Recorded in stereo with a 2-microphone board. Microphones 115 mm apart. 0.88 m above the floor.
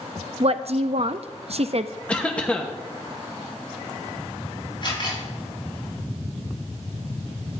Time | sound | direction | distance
0.4 | a woman speaking | 55° right (ahead or behind) | 0.6 m
2.1 | a cough | 10° left (ahead or behind) | 1.0 m
4.8 | a camera shutter | 45° left (ahead or behind) | 6 m